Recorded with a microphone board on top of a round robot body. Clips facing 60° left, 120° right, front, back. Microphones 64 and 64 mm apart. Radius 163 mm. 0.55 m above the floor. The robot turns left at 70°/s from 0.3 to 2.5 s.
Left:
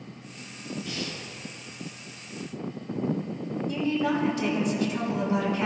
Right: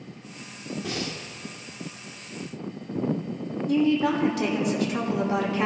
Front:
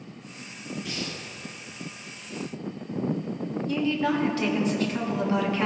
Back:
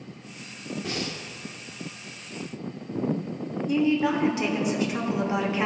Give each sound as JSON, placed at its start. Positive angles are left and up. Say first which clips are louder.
{"t": 0.8, "sound": "breathing", "louder": "right 3 dB, back 5 dB", "azimuth_deg": -130, "distance_m": 1.4}
{"t": 3.7, "sound": "a woman speaking", "louder": "right 5 dB, back 3 dB", "azimuth_deg": -110, "distance_m": 2.0}